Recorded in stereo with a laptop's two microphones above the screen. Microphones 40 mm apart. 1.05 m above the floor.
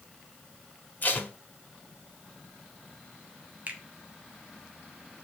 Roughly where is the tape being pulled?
Left.